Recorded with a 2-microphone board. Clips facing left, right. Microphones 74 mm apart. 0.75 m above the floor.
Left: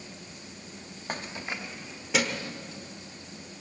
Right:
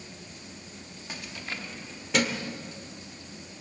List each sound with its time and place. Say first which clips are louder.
1.1 s keys jangling: left 4 dB; 45° left (ahead or behind), 0.5 m; by 2.5 s centre (ahead or behind), 1.6 m